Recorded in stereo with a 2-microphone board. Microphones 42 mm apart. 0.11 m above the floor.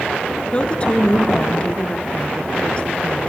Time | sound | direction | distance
0.5 | a woman speaking | 25° left (ahead or behind) | 1.7 m